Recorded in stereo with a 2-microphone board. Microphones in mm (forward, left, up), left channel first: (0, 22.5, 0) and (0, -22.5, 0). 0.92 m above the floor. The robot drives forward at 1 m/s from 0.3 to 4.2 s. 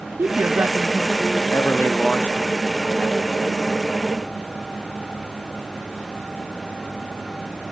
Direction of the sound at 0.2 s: 55° right (ahead or behind).